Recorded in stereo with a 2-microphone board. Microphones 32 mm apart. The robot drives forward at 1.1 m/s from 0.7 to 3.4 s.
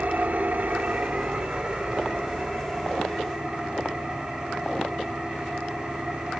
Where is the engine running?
45° right (ahead or behind), 1.5 m; by 6.4 s 15° right (ahead or behind), 4 m.